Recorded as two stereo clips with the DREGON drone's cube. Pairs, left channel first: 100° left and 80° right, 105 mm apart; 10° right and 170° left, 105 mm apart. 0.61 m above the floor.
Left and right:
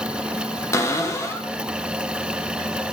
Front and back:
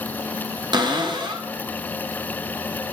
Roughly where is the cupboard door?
Behind left.